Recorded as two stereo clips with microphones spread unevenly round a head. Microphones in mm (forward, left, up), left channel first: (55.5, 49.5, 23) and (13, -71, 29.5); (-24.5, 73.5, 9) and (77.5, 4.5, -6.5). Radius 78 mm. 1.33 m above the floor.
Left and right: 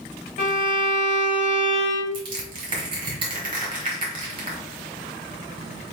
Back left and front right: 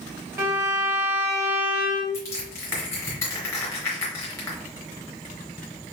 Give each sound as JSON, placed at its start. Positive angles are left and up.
{"t": 0.4, "sound": "a violin", "azimuth_deg": 35, "distance_m": 1.8}
{"t": 2.1, "sound": "crushing", "azimuth_deg": -155, "distance_m": 1.7}